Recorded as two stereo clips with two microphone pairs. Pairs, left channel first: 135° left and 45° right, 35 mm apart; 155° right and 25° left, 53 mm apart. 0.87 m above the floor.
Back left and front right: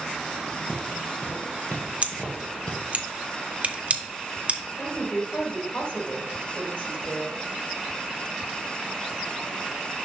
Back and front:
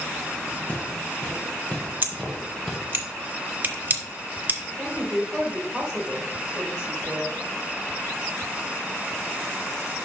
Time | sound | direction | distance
0.7 | footsteps | 150° left | 2 m
2.0 | scissors | 15° right | 0.8 m
4.8 | a woman speaking | 95° left | 3.5 m